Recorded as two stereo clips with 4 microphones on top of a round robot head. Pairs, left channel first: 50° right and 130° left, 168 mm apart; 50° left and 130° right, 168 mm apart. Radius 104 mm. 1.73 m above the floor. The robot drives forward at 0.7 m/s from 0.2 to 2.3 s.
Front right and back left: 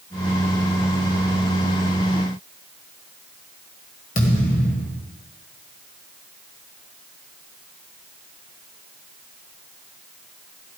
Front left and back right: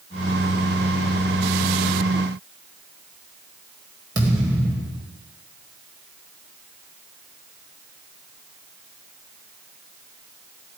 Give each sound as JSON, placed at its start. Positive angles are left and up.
{"t": 4.2, "sound": "a thud", "azimuth_deg": -70, "distance_m": 1.8}